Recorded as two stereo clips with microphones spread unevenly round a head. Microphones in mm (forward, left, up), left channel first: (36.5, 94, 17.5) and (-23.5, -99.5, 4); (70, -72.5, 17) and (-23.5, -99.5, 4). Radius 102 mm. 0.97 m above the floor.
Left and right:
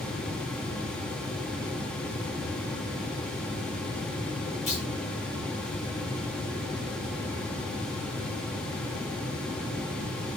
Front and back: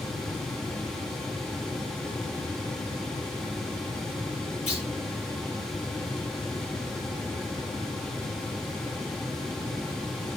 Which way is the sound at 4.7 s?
15° left.